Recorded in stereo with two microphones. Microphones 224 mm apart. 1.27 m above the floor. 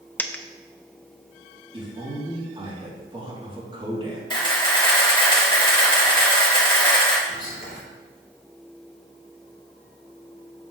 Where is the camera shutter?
20° left (ahead or behind), 2.5 m.